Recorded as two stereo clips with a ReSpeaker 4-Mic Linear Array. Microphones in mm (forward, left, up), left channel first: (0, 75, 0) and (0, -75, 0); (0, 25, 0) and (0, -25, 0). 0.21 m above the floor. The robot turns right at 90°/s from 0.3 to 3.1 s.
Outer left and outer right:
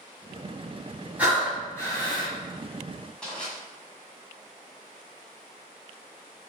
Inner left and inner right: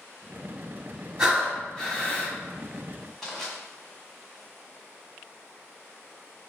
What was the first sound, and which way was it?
Breathing, 20° right.